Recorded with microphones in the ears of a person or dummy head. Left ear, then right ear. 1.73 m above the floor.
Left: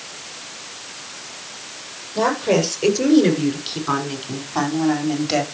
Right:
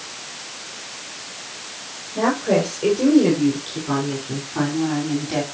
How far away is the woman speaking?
About 7 m.